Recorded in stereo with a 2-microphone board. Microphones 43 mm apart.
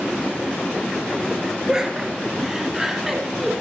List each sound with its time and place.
1.7 s laughter: 15° right (ahead or behind), 2.5 m; by 3.5 s 5° right (ahead or behind), 1.8 m